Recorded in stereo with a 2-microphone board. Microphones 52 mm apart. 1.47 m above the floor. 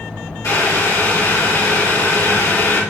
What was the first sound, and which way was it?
Boiling, 75° left (ahead or behind).